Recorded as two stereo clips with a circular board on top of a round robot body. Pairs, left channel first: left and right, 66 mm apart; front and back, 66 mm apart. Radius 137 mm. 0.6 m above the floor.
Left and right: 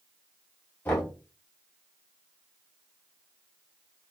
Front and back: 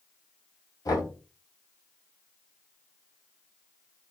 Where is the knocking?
30° left, 5 m.